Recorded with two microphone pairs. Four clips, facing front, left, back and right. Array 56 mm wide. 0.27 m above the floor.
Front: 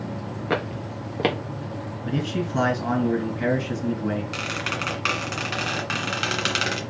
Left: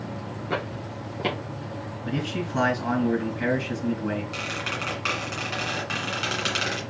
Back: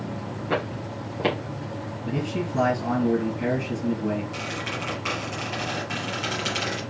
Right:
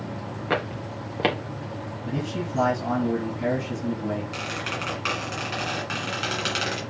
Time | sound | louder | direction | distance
0.5 | footsteps | right 3 dB, front 1 dB | 55° right | 2.5 m
2.0 | a man speaking | left 1 dB, front 2 dB | 45° left | 2.5 m
4.3 | a squeak | even, front 3 dB | 5° right | 1.9 m